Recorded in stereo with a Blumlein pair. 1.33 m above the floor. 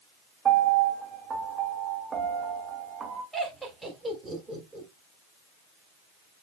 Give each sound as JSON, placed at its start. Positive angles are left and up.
{"t": 0.5, "sound": "a piano", "azimuth_deg": -20, "distance_m": 1.9}
{"t": 3.3, "sound": "laughter", "azimuth_deg": -5, "distance_m": 3.5}